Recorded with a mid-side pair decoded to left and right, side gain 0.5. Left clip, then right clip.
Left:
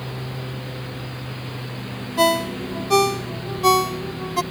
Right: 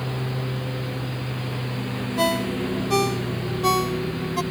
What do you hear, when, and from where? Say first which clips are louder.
0.0 s a lawn mower: right 2 dB; 25° right
2.2 s a ringtone: left 4 dB; 30° left